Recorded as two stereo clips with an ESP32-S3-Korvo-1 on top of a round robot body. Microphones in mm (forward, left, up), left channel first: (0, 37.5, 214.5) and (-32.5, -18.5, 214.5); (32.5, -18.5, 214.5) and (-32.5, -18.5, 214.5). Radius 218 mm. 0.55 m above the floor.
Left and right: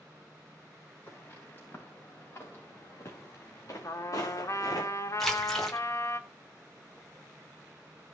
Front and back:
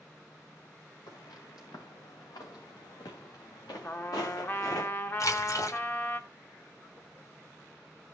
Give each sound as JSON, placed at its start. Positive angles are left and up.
{"t": 1.1, "sound": "footsteps", "azimuth_deg": -5, "distance_m": 6.5}
{"t": 3.8, "sound": "a trumpet", "azimuth_deg": 45, "distance_m": 1.8}
{"t": 5.2, "sound": "a splash", "azimuth_deg": -25, "distance_m": 3.0}